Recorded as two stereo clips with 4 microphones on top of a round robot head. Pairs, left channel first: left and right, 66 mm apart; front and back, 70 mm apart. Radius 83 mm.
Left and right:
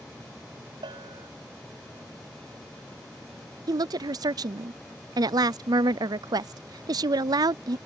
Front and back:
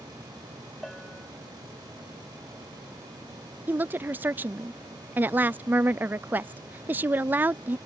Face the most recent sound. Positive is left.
turn(degrees=-115)